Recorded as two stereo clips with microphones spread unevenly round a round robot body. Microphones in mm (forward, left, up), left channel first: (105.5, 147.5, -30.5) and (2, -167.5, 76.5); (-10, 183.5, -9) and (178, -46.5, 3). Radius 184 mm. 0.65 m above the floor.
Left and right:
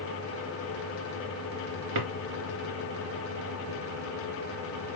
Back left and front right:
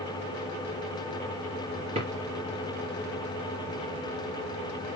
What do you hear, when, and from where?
1.9 s a drawer: 125° right, 2.5 m